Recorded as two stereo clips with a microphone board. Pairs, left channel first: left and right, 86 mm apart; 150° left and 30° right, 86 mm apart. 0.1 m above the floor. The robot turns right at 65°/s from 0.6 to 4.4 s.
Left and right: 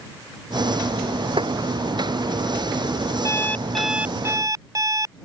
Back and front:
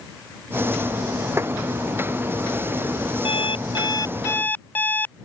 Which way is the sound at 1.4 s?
90° right.